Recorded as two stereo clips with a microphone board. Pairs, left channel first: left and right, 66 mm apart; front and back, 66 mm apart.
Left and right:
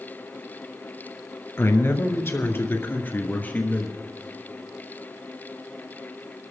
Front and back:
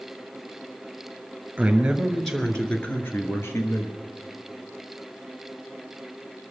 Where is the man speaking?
115° left, 2.0 m; by 4.0 s 25° left, 2.5 m.